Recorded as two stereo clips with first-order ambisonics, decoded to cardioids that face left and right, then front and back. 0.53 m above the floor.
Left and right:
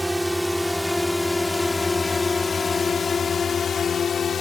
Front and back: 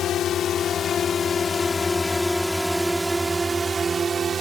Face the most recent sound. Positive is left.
turn(degrees=135)